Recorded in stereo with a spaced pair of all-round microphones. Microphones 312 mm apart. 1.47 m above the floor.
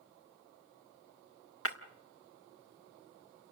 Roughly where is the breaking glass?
Left.